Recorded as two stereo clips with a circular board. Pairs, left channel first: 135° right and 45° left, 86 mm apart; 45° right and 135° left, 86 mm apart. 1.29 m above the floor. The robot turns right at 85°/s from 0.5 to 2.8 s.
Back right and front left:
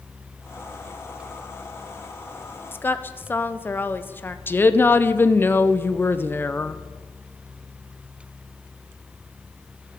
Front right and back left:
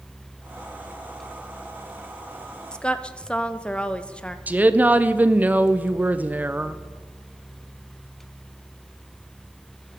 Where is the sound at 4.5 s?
175° right, 0.5 m.